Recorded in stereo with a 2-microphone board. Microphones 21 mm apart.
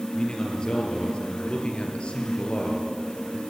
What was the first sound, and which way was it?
A man speaking, 40° left (ahead or behind).